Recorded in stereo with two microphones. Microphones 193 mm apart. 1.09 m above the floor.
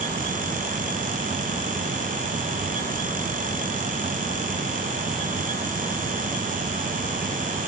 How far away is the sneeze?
No sneeze in this recording.